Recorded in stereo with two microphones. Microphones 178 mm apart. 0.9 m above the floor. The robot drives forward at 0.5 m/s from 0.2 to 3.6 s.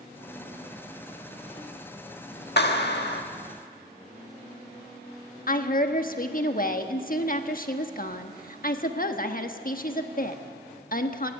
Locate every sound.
2.6 s a clap: 75° left (ahead or behind), 1.5 m
5.5 s a woman speaking: 55° left (ahead or behind), 1.3 m